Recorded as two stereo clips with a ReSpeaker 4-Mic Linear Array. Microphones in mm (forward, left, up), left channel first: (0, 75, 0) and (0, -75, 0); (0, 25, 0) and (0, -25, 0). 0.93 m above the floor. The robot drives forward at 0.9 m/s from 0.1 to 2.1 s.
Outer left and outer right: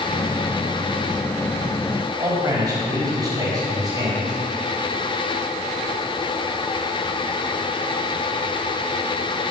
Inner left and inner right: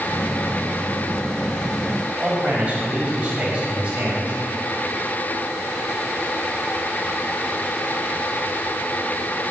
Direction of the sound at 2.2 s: 25° right (ahead or behind).